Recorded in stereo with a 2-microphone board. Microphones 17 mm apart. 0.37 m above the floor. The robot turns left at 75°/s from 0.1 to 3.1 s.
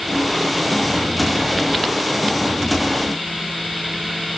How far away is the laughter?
I don't hear laughter.